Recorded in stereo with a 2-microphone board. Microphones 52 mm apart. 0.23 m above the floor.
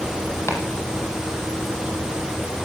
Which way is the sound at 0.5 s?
55° left (ahead or behind).